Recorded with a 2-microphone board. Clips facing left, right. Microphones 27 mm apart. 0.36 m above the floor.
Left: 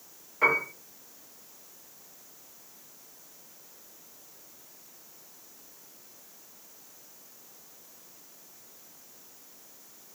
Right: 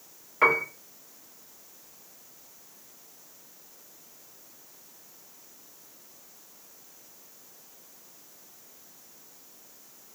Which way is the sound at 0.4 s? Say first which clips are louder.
Right 2 dB; 30° right (ahead or behind).